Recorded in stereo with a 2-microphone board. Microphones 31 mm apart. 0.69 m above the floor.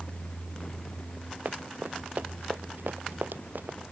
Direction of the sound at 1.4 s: 75° right (ahead or behind).